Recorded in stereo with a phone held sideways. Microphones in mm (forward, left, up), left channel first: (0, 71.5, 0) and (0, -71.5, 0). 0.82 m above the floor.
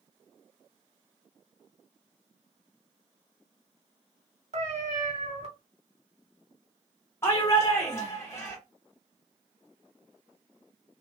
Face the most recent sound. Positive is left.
turn(degrees=20)  # may be behind; listen again after turning